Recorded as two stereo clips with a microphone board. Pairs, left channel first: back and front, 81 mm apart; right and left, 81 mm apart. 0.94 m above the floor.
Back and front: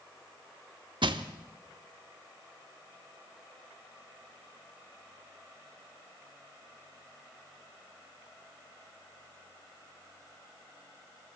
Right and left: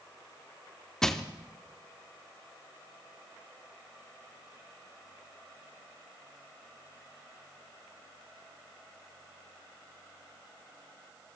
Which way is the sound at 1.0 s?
5° right.